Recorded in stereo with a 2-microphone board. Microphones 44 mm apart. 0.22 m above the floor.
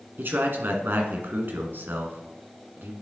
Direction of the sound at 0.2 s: 55° right (ahead or behind).